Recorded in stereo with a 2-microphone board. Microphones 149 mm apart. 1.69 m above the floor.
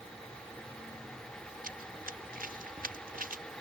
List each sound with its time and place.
1.6 s running footsteps: 80° right